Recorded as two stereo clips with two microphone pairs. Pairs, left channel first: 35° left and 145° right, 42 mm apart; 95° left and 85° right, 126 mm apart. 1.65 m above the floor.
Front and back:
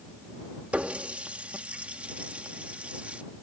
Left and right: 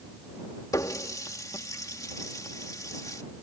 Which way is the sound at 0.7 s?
160° left.